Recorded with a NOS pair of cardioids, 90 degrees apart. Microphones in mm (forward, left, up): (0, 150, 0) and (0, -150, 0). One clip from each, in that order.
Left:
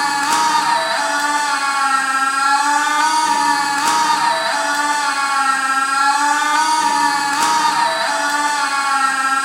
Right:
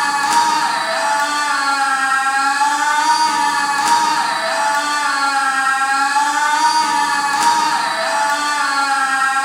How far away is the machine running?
About 1.0 m.